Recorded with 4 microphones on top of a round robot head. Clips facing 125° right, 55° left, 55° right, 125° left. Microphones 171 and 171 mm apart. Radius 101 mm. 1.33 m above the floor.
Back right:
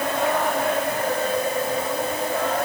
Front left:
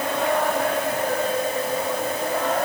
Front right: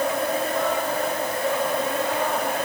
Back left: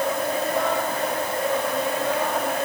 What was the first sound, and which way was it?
Only background noise.